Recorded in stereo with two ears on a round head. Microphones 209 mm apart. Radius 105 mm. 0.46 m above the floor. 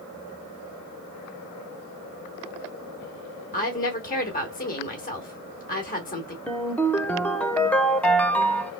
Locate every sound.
3.5 s a woman speaking: 35° left (ahead or behind), 1.1 m
6.5 s a ringtone: 5° left (ahead or behind), 0.5 m